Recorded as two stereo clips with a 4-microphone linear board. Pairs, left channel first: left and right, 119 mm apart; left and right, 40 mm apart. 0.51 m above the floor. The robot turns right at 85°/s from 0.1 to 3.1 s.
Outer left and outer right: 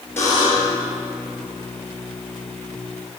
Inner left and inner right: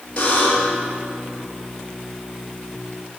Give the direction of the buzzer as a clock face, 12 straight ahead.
11 o'clock.